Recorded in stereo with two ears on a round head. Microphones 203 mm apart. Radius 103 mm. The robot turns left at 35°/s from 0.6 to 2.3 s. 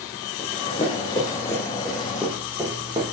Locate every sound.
0.4 s running footsteps: 30° left (ahead or behind), 2.5 m; by 3.0 s 25° right (ahead or behind), 2.5 m